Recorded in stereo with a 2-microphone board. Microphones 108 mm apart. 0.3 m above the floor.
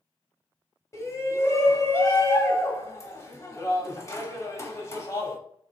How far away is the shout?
About 1.2 m.